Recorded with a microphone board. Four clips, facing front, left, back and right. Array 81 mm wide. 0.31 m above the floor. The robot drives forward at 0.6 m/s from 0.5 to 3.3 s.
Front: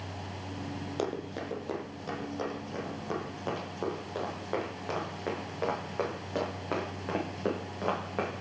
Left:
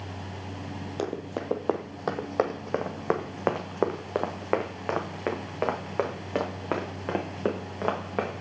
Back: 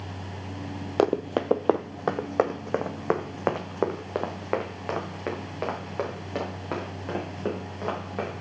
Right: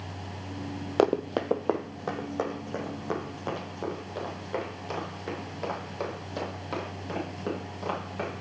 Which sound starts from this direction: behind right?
Running footsteps, at 1.0 s.